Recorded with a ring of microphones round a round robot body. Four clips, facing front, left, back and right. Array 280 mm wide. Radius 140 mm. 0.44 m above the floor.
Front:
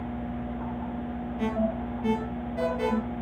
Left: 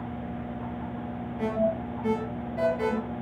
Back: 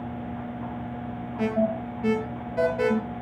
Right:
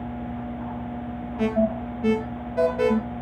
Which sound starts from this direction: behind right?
An alarm, at 1.4 s.